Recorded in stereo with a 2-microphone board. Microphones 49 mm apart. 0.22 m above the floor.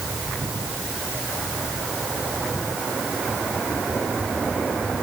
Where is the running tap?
I don't hear a running tap.